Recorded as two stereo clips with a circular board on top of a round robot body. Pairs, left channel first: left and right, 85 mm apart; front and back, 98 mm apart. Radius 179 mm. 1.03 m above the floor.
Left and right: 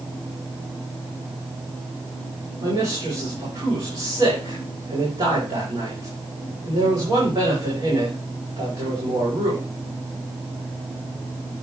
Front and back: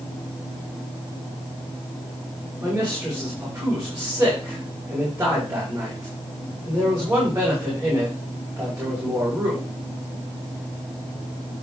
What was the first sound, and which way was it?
A man speaking, 115° right.